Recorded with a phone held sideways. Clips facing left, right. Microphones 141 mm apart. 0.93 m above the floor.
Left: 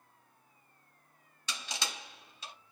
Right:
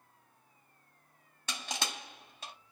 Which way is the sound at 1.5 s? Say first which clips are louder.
Right 2 dB; 50° right (ahead or behind).